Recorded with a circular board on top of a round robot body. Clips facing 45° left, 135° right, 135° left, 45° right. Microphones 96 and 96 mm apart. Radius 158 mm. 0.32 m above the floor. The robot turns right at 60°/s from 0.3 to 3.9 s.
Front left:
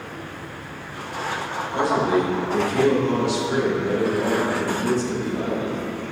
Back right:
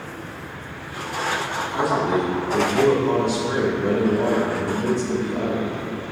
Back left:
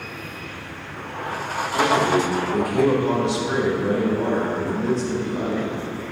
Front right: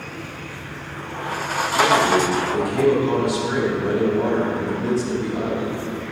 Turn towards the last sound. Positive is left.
turn(degrees=-130)